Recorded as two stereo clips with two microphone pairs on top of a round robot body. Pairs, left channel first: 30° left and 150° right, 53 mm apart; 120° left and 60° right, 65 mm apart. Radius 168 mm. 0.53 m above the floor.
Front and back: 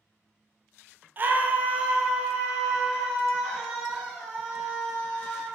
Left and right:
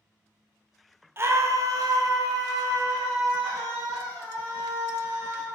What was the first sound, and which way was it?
A scream, 110° right.